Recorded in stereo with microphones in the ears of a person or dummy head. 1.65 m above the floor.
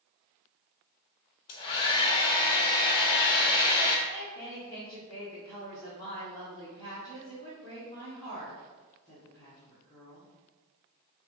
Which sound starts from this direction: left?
A hair dryer, at 1.5 s.